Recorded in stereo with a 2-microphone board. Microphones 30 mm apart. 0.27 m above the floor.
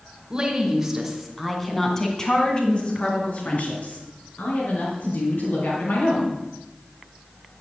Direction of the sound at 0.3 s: 20° right (ahead or behind).